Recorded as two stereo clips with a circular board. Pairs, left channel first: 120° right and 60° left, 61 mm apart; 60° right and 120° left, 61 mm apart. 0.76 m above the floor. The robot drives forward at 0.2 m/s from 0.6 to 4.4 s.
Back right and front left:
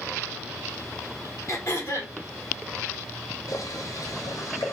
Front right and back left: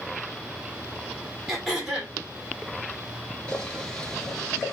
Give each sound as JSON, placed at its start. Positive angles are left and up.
{"t": 1.5, "sound": "throat clearing", "azimuth_deg": -155, "distance_m": 2.0}
{"t": 3.5, "sound": "boiling", "azimuth_deg": -135, "distance_m": 1.3}